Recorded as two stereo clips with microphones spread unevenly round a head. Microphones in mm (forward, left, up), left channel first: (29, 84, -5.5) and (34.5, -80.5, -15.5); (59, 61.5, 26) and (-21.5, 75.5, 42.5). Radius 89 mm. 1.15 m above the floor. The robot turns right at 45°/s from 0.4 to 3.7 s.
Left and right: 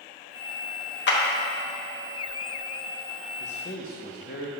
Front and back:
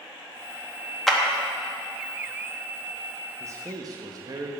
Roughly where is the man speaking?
Left.